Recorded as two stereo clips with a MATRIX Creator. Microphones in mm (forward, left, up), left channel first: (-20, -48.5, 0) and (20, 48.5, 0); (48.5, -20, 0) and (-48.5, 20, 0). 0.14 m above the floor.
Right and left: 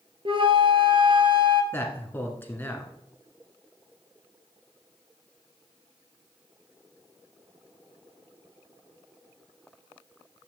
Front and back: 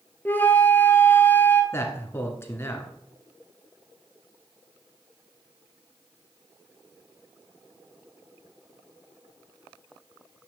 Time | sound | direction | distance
0.2 | a flute | 45° left | 1.0 m
1.7 | a man speaking | 60° right | 1.5 m